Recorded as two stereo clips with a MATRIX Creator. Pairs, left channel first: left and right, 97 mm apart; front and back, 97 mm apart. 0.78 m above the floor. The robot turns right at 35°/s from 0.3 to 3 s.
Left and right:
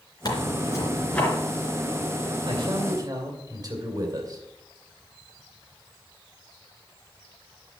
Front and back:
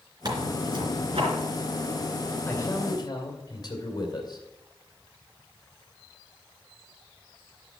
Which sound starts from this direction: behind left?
Tearing paper, at 0.2 s.